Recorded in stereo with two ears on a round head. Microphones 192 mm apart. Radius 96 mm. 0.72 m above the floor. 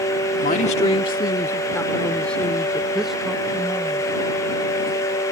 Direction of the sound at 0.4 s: 40° left (ahead or behind).